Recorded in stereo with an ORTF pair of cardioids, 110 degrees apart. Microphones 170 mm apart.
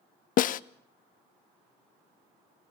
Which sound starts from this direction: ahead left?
A snare drum, at 0.4 s.